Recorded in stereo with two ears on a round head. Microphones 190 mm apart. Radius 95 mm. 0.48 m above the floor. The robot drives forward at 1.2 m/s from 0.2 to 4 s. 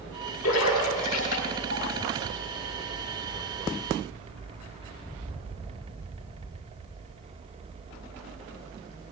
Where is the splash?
85° left, 4 m; by 1.8 s 65° left (ahead or behind), 4.5 m.